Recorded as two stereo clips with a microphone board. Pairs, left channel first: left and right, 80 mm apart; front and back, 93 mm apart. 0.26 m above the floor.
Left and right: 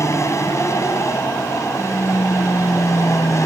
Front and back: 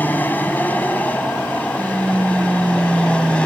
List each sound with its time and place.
0.0 s an aircraft: 60° left; by 3.5 s 70° left